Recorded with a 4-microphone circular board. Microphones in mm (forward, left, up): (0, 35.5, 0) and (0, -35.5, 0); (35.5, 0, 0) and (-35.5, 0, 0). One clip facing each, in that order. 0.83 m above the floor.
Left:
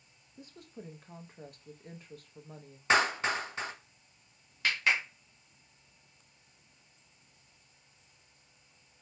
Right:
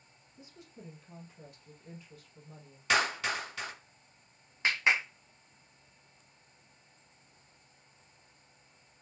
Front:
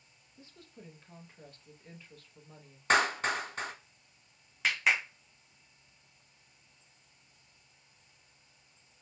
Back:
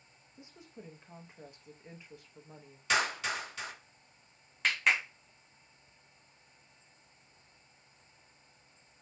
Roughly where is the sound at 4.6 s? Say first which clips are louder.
Right 1 dB, even; right.